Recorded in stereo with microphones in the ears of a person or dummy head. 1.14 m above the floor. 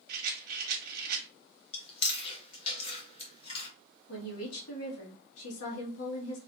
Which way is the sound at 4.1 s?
85° left.